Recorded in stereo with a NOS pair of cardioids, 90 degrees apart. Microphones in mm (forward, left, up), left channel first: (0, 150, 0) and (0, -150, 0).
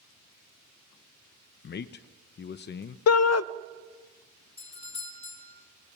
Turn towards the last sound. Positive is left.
turn(degrees=20)